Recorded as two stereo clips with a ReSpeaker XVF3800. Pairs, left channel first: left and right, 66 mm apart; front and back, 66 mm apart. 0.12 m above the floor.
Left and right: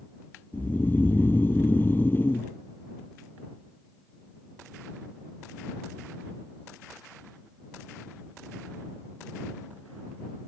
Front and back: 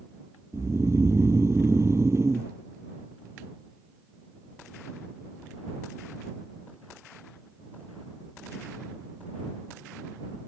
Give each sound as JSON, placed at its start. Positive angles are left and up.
{"t": 0.5, "sound": "snoring", "azimuth_deg": 145}